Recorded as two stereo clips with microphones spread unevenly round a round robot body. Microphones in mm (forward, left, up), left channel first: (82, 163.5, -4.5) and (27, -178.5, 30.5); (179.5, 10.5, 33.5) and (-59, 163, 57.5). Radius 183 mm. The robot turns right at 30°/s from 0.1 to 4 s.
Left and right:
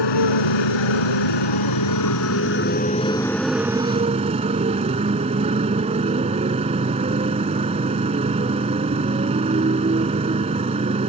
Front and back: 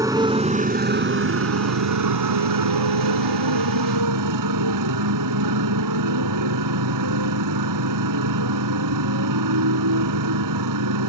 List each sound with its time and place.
0.0 s a motorcycle: 70° left; by 11.1 s 175° right